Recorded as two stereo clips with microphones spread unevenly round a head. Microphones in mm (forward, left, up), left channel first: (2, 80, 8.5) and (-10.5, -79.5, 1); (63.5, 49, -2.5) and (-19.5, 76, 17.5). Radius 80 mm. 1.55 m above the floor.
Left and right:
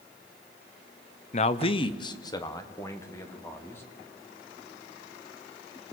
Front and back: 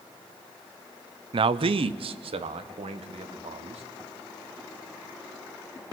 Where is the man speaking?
135° left, 0.8 m; by 3.8 s 165° left, 2.5 m.